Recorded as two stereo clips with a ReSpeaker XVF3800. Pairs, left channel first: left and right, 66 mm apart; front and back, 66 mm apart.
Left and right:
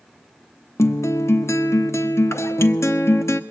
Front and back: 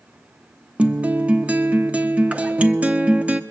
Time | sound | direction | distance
0.8 | a guitar | 115° left | 0.6 m